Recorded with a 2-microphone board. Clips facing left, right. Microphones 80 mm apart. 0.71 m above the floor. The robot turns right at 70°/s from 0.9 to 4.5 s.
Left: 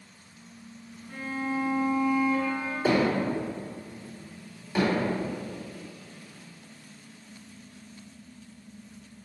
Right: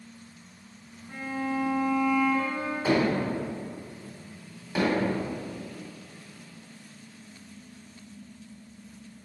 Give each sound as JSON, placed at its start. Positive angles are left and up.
{"t": 1.1, "sound": "a violin", "azimuth_deg": -165, "distance_m": 0.9}
{"t": 2.9, "sound": "hammering", "side_deg": 55, "distance_m": 1.6}
{"t": 4.8, "sound": "hammering", "side_deg": -5, "distance_m": 2.0}